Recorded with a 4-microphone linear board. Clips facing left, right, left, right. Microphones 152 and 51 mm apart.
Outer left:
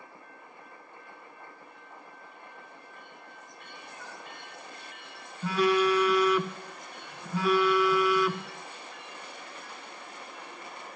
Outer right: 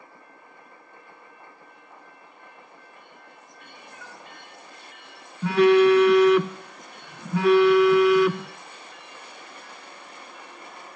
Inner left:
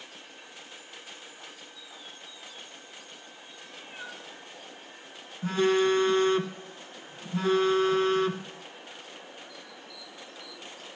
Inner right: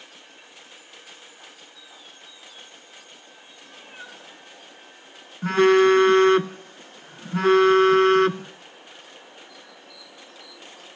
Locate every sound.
3.6 s a cat meowing: 50° right (ahead or behind), 2.5 m
5.4 s a phone buzzing: 70° right (ahead or behind), 0.5 m